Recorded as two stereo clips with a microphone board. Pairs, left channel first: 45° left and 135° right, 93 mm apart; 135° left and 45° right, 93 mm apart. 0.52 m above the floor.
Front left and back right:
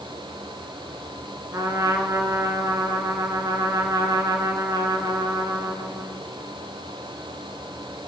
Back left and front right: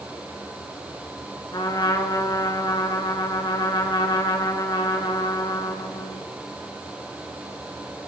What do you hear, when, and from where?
1.5 s a trumpet: 175° left, 2.5 m